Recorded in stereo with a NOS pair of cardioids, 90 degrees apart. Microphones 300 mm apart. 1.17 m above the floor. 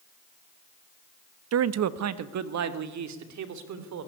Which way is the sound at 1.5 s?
55° right.